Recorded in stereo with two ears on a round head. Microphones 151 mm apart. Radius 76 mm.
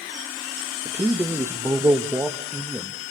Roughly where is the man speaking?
Centre.